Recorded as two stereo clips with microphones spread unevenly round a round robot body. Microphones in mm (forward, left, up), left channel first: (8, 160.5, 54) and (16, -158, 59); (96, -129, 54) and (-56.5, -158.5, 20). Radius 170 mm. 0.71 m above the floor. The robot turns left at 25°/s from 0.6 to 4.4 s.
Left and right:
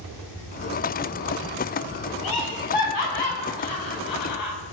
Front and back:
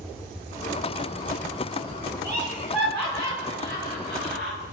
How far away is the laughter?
About 5.5 m.